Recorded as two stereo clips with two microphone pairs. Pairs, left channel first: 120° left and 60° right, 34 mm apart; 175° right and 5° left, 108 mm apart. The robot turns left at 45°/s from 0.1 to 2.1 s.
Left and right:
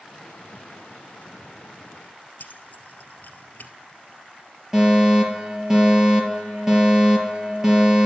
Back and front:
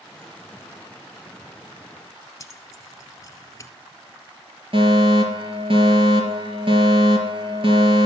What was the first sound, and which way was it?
Keys jangling, 130° left.